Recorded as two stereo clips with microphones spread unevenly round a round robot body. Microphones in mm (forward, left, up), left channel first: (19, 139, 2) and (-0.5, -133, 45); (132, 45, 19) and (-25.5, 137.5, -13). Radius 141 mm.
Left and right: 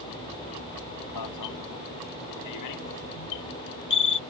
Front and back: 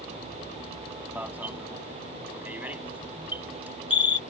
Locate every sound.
1.1 s an alarm: 70° left